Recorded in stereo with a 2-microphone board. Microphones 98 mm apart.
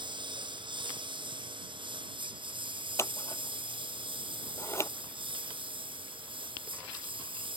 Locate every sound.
0.0 s a lawn mower: 55° right (ahead or behind); by 7.6 s 60° right (ahead or behind)
3.0 s scissors: 25° left (ahead or behind)